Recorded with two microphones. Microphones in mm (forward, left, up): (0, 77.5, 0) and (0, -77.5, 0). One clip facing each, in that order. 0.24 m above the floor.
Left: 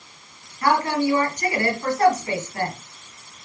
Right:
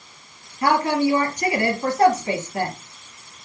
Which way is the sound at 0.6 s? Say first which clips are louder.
Right 1 dB; 25° right (ahead or behind).